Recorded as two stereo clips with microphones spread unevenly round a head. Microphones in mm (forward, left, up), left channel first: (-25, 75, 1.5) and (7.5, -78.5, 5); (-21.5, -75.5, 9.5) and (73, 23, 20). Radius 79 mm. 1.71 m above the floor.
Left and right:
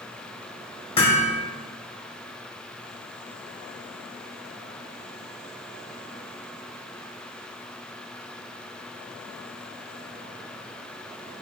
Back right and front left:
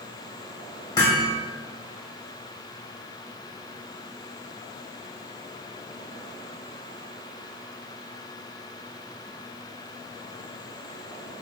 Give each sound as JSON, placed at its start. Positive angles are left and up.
{"t": 1.0, "sound": "hammering", "azimuth_deg": 160, "distance_m": 2.5}